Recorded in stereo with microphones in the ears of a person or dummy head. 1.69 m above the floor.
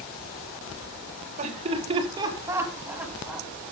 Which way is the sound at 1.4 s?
35° right (ahead or behind).